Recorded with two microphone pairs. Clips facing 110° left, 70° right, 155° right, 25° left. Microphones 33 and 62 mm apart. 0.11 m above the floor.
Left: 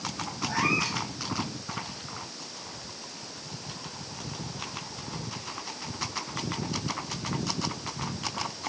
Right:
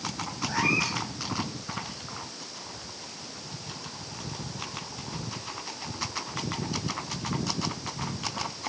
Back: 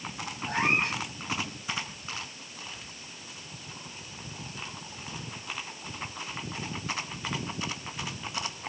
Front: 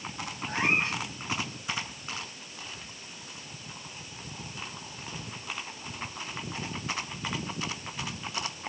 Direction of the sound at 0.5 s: Straight behind.